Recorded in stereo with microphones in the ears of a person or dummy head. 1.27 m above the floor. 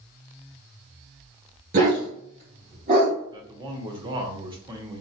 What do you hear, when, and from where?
1.7 s a dog barking: 45° right (ahead or behind), 1.4 m; by 3.2 s 50° right (ahead or behind), 3 m
3.3 s a man speaking: 20° right (ahead or behind), 0.8 m